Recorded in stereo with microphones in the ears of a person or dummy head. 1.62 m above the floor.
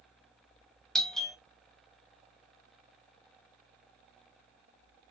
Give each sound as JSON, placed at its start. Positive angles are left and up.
{"t": 0.9, "sound": "a doorbell", "side_deg": 0, "distance_m": 0.5}